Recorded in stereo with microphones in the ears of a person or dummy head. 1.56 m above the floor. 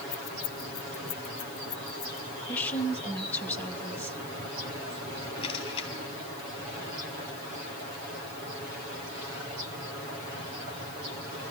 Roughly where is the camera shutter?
Left.